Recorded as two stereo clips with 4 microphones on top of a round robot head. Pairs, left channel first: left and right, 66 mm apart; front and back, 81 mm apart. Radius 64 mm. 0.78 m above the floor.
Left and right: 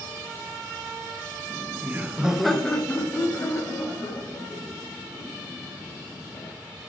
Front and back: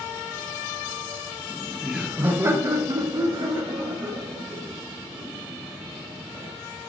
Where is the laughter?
80° right, 0.8 m; by 6.5 s 135° left, 3 m.